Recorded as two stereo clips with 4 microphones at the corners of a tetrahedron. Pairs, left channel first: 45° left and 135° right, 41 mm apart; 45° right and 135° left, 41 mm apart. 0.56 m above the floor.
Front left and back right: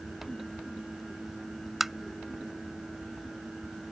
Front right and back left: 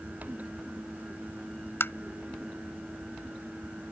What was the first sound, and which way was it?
Tapping, 50° right.